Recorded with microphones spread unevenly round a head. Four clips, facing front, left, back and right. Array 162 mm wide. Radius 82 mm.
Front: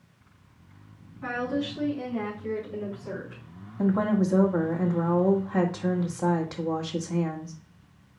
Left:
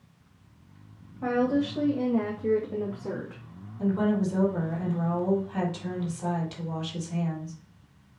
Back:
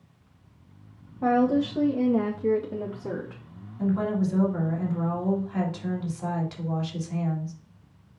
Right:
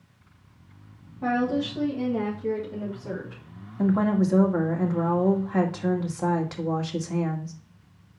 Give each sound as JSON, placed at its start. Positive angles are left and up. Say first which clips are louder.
{"t": 1.2, "sound": "a woman speaking", "louder": "even, back 8 dB", "azimuth_deg": -175, "distance_m": 1.7}
{"t": 3.8, "sound": "a woman speaking", "louder": "right 3 dB, front 2 dB", "azimuth_deg": -50, "distance_m": 2.0}